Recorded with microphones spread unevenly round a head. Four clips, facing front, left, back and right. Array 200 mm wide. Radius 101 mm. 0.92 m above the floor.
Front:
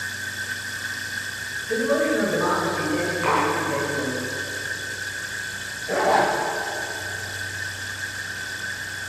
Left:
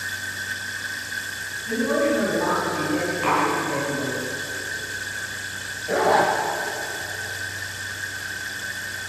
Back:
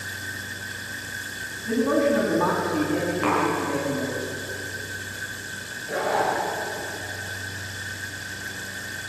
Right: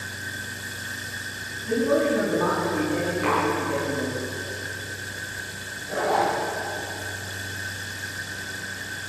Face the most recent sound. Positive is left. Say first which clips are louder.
# left 4 dB, front 4 dB
turn(degrees=60)